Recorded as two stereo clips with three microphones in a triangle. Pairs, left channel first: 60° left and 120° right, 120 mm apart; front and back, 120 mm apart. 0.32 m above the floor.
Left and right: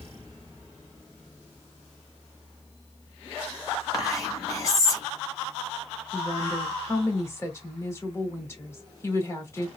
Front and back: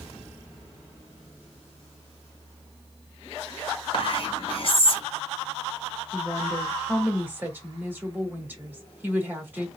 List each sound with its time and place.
3.9 s whispering: 10° left, 1.5 m
6.1 s a woman speaking: 115° left, 1.2 m